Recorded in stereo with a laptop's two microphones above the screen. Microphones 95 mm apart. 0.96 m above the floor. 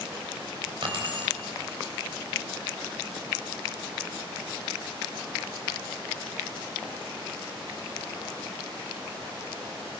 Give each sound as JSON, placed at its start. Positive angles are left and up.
{"t": 0.8, "sound": "keys jangling", "side_deg": -65, "distance_m": 3.0}